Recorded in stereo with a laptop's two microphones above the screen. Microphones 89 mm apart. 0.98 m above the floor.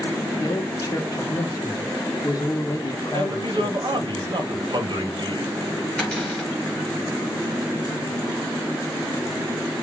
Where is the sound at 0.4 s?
40° left (ahead or behind), 0.7 m.